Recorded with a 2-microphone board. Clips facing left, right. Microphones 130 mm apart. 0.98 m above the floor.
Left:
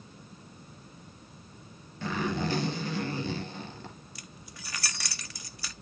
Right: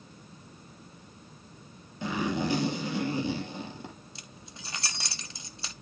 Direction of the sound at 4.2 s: 25° right (ahead or behind).